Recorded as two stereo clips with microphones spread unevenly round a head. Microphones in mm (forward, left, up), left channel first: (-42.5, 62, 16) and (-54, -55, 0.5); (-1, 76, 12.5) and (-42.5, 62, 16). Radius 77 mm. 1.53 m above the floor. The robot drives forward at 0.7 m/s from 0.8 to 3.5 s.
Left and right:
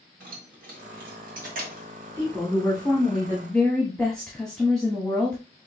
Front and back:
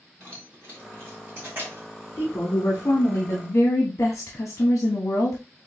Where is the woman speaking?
Straight ahead, 1.6 m; by 5.4 s 5° right, 0.7 m.